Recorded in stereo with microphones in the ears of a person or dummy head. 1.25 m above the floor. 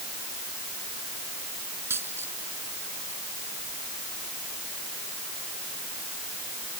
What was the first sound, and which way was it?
A dropped coin, 15° right (ahead or behind).